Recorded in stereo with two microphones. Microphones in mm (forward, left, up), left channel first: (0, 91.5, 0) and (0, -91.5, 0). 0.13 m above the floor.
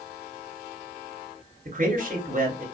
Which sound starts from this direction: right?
A man speaking, at 1.6 s.